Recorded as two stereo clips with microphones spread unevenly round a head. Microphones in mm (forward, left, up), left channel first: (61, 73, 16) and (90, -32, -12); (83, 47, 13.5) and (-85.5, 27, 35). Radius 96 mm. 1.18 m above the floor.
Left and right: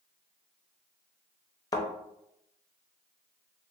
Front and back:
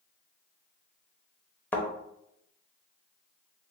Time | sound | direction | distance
1.7 | a thud | 90° left | 0.6 m